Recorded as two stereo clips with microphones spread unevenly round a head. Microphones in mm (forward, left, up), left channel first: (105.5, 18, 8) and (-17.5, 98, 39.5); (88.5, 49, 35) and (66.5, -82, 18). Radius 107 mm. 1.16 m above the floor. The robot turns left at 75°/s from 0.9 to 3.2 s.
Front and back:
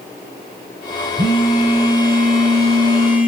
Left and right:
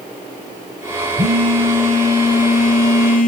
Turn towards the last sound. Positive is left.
turn(degrees=70)